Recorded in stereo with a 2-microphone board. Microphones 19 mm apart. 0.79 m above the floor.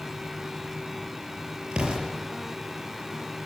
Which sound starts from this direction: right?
An explosion, at 1.7 s.